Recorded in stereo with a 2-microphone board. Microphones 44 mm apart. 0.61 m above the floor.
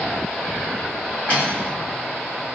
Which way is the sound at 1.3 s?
30° left (ahead or behind).